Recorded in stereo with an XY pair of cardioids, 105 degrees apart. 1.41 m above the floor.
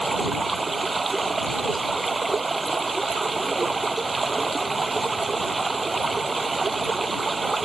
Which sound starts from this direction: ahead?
Running water, at 0.0 s.